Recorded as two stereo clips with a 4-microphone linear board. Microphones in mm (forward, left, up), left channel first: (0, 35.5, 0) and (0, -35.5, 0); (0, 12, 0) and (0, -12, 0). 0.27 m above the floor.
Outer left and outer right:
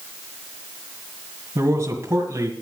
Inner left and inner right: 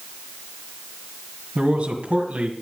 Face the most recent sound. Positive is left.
turn(degrees=-40)  # may be behind; listen again after turning